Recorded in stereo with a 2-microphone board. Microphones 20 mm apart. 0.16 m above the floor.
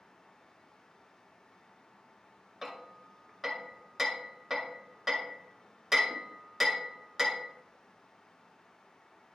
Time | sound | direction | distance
2.6 | hammering | 10° right (ahead or behind) | 2 m